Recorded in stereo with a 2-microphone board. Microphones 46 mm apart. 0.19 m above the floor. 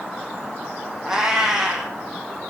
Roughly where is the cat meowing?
Centre.